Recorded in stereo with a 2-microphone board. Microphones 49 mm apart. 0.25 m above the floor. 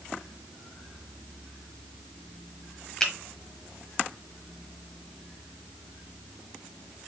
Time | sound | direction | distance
3.0 | a finger snap | 15° left (ahead or behind) | 1.1 m